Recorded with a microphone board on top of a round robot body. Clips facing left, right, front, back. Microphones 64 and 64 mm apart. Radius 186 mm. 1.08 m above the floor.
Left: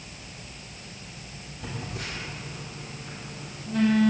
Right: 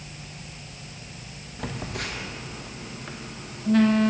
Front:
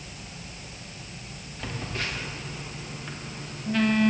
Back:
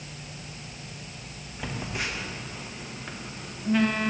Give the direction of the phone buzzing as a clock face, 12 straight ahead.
3 o'clock.